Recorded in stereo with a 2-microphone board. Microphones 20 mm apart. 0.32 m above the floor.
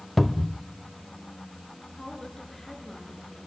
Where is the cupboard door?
5° left (ahead or behind), 0.6 m.